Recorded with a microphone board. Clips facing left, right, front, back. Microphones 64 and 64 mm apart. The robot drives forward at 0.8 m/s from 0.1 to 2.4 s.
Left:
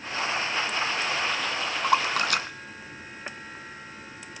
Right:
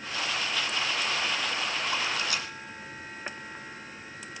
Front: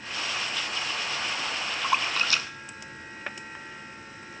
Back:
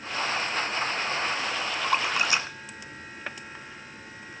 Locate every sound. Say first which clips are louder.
1.8 s a splash: left 7 dB, back 1 dB; 80° left, 0.8 m; by 3.9 s 115° left, 0.8 m